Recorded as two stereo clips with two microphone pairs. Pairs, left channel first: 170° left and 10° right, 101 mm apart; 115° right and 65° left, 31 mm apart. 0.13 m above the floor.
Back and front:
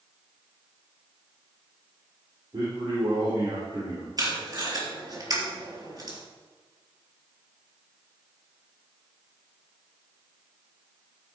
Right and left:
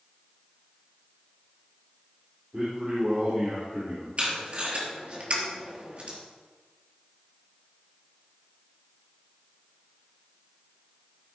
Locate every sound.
2.5 s a man speaking: 20° left, 4.5 m; by 4.1 s 35° left, 4.5 m
4.2 s tape being pulled: 30° left, 3 m